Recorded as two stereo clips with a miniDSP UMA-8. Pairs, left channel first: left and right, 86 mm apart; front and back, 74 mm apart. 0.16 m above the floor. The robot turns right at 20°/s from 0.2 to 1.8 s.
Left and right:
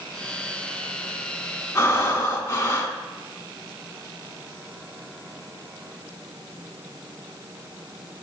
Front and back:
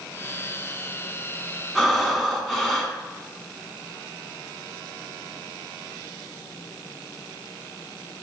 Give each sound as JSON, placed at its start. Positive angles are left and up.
{"t": 1.8, "sound": "breathing", "azimuth_deg": 85, "distance_m": 0.7}